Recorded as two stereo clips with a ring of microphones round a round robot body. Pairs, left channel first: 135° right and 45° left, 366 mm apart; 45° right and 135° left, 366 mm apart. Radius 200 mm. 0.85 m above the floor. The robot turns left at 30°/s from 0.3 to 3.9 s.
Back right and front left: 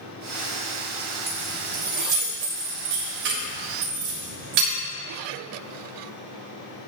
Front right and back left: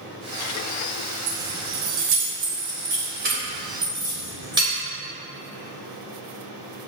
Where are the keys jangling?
135° left, 3.5 m; by 4.7 s 55° left, 3.5 m.